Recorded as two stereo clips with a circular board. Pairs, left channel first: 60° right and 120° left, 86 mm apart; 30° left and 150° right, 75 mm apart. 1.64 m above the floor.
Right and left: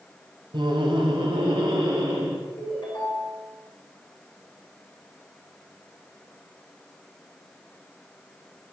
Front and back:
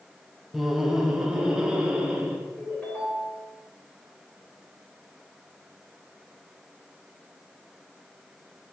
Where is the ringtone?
40° right, 3 m.